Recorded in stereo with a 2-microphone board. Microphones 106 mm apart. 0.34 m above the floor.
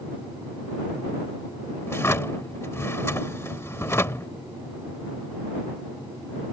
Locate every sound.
1.9 s a drawer: 25° left (ahead or behind)